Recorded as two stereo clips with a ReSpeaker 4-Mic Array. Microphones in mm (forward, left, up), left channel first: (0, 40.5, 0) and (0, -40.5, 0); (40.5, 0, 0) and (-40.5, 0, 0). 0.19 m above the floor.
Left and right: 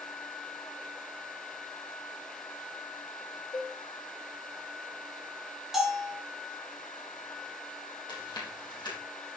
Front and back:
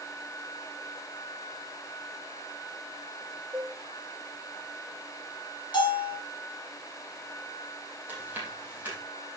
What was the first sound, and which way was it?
A cowbell, 105° left.